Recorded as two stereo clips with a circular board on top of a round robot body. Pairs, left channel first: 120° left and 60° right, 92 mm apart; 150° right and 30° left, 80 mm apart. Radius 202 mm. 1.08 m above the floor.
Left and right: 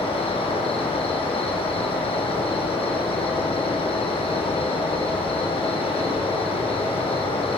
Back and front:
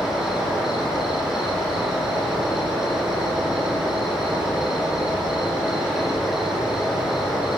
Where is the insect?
115° left, 7 m.